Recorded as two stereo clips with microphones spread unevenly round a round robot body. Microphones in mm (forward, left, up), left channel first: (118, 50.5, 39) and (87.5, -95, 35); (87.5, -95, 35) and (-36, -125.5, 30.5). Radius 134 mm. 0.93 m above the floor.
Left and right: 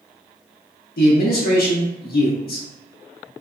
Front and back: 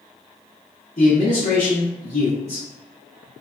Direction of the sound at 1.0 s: 65° left.